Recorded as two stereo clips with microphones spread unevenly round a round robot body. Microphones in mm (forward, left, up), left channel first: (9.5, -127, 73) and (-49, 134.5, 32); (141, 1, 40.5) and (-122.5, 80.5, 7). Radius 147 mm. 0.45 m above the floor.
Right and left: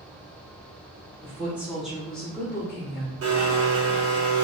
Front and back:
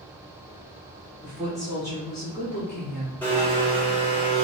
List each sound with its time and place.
1.2 s a woman speaking: 125° left, 1.3 m; by 3.1 s 5° left, 1.5 m
3.2 s a blender: 70° left, 0.9 m